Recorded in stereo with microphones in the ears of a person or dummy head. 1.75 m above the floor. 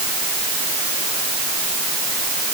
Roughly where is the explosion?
No explosion in this recording.